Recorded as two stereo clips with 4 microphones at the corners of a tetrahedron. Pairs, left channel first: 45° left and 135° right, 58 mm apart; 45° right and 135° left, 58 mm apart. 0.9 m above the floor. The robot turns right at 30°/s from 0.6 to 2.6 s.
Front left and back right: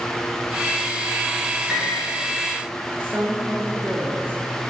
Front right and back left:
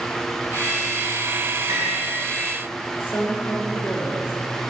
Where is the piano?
140° left, 3 m; by 2.1 s 150° left, 3 m.